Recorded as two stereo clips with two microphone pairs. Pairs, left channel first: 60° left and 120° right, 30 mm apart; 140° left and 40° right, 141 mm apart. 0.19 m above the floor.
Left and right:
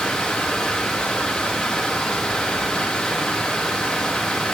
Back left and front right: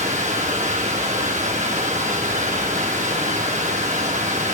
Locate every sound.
0.0 s running water: 10° right, 9.5 m